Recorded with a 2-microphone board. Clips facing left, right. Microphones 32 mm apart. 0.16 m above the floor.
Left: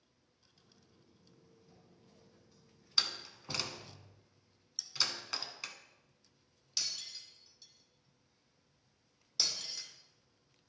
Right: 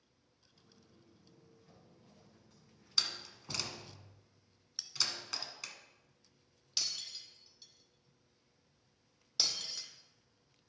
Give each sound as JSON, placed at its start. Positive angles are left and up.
{"t": 0.5, "sound": "footsteps", "side_deg": -70, "distance_m": 4.0}
{"t": 3.0, "sound": "a door slam", "side_deg": 10, "distance_m": 1.0}
{"t": 4.8, "sound": "a bell", "side_deg": -30, "distance_m": 0.6}
{"t": 6.8, "sound": "breaking glass", "side_deg": -20, "distance_m": 1.7}